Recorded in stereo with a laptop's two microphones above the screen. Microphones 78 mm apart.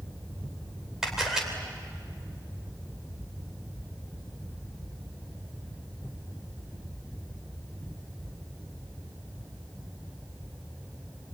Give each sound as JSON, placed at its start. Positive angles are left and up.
{"t": 1.0, "sound": "a camera shutter", "side_deg": -5, "distance_m": 3.0}